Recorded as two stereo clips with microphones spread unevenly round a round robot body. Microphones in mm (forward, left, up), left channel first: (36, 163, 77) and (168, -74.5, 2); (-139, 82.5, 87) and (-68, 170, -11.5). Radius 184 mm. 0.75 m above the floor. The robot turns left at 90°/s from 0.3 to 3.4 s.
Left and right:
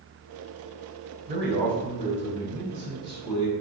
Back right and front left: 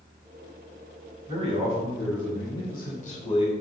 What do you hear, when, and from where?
1.3 s a man speaking: straight ahead, 3.5 m; by 3.5 s 170° left, 3.5 m